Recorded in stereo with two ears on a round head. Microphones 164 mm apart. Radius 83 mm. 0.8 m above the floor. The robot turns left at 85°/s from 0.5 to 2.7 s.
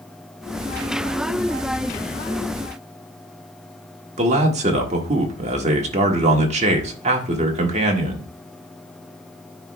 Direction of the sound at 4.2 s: 40° right (ahead or behind).